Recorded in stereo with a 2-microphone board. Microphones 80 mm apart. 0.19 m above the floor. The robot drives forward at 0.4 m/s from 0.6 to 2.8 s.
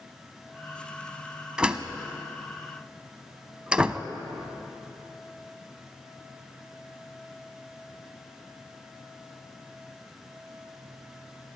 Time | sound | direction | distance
1.6 | a door slam | 10° right (ahead or behind) | 0.7 m